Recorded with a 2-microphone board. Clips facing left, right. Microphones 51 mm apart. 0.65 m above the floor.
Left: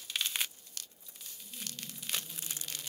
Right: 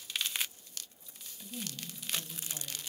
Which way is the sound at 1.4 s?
80° right.